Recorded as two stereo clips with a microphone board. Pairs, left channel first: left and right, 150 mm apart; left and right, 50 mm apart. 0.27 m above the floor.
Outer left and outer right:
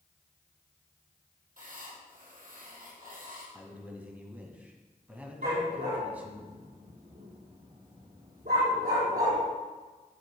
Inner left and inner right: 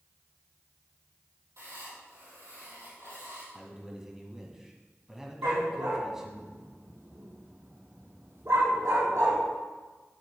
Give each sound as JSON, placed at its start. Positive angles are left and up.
{"t": 1.6, "sound": "writing", "side_deg": -65, "distance_m": 3.0}
{"t": 3.5, "sound": "a man speaking", "side_deg": -10, "distance_m": 1.6}
{"t": 5.4, "sound": "a dog barking", "side_deg": -85, "distance_m": 3.5}